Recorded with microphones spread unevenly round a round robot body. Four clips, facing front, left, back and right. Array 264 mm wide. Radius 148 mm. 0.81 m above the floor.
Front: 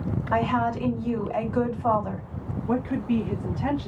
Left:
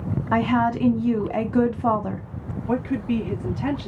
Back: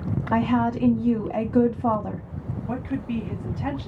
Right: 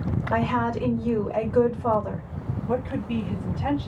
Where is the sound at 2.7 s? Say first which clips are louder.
Left 4 dB, front 4 dB; 70° left, 2.5 m.